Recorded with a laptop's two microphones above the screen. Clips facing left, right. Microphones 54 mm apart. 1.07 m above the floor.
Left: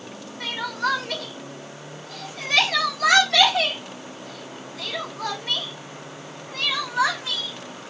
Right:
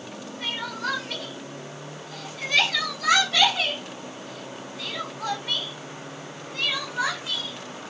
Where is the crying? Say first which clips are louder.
Left 4 dB; 85° left, 3 m.